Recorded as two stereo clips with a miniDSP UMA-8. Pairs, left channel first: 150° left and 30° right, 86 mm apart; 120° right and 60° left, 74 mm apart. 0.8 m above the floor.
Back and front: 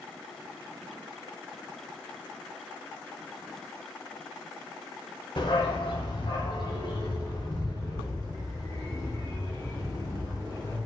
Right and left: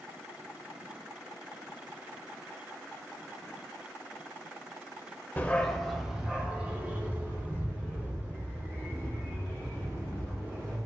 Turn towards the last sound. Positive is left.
turn(degrees=115)